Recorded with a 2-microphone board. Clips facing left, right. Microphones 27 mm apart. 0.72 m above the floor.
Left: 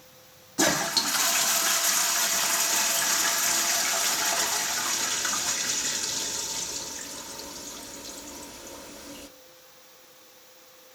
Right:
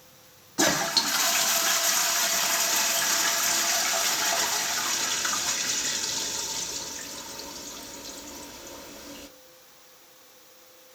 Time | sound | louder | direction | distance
0.6 | a toilet flushing | right 1 dB | 10° right (ahead or behind) | 1.1 m